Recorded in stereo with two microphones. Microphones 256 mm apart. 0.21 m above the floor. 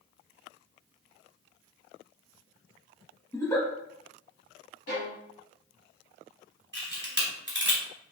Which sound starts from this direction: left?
A violin, at 4.9 s.